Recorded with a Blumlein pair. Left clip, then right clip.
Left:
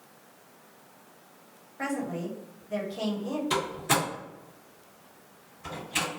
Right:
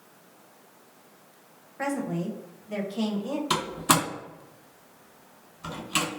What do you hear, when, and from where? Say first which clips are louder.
1.8 s a woman speaking: right 2 dB; 10° right, 1.1 m
3.5 s a door slam: right 3 dB; 35° right, 1.8 m